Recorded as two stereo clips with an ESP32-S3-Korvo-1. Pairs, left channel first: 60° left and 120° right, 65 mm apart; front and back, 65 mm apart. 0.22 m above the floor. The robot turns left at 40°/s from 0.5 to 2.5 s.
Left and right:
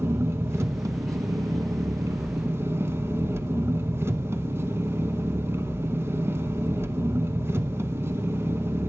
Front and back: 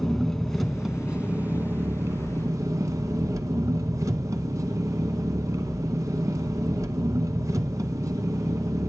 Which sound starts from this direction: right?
An engine running, at 0.0 s.